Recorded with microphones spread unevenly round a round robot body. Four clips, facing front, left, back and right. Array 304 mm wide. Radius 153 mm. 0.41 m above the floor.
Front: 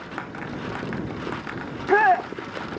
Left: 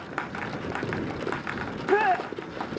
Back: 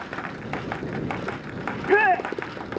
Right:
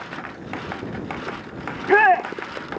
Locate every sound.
1.7 s a shout: 105° right